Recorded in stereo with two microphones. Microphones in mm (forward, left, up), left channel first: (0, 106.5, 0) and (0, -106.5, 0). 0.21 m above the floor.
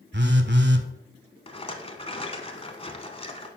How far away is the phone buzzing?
About 0.7 m.